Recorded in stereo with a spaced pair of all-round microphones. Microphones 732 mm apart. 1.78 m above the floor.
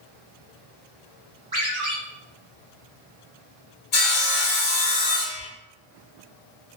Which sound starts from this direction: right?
A ringtone, at 1.5 s.